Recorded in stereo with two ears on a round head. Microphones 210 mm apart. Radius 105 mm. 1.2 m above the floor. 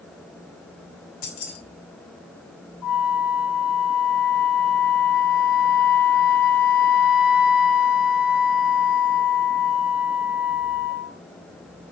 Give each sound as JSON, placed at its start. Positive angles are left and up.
{"t": 1.2, "sound": "keys jangling", "side_deg": 85, "distance_m": 4.0}
{"t": 2.8, "sound": "a flute", "side_deg": 85, "distance_m": 4.0}